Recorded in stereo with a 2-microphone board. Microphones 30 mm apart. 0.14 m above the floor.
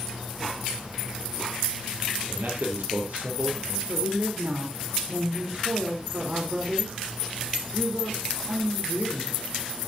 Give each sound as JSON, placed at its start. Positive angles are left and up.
{"t": 2.3, "sound": "a man speaking", "side_deg": -70, "distance_m": 3.5}
{"t": 3.9, "sound": "a woman speaking", "side_deg": -55, "distance_m": 3.0}